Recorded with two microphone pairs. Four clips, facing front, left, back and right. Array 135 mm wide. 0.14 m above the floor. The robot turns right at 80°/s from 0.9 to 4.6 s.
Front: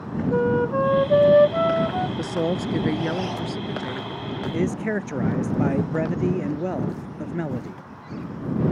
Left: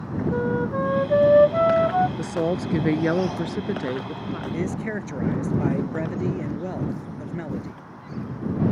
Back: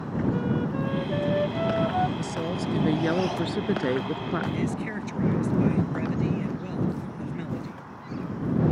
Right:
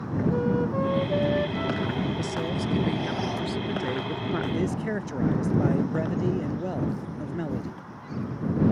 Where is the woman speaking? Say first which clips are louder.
Left 4 dB, front 5 dB; 25° left; by 4.4 s 155° right.